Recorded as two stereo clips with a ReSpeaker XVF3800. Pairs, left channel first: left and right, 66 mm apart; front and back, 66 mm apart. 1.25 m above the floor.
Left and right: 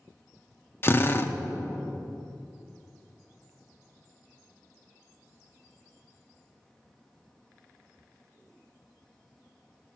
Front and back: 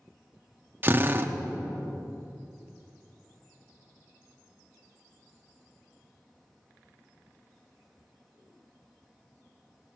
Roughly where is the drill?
Behind left.